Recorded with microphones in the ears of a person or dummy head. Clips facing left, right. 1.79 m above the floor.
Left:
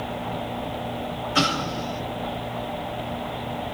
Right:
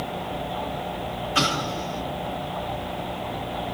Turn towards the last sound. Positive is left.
turn(degrees=30)  # may be behind; listen again after turning